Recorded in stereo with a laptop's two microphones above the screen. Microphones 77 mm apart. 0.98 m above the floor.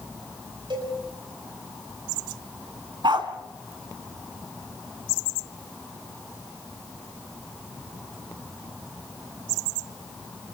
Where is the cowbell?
80° right, 6 m.